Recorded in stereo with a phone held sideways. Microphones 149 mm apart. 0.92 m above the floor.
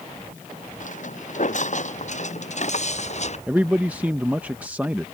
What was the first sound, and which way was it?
Footsteps, 55° left (ahead or behind).